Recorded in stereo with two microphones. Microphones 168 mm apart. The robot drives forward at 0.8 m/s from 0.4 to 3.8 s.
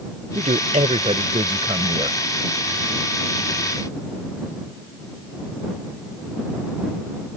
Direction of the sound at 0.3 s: 45° right (ahead or behind).